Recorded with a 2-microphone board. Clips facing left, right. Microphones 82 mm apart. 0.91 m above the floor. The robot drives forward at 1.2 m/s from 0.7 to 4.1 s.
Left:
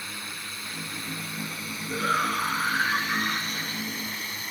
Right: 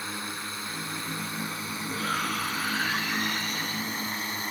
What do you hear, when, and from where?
0.0 s a drone: 25° right (ahead or behind); by 4.5 s 30° right (ahead or behind)
1.9 s a shout: 35° left (ahead or behind); by 3.9 s 40° left (ahead or behind)